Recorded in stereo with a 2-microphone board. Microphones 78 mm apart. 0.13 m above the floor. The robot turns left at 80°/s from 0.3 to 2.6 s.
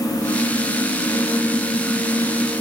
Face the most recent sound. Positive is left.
No sound to turn to.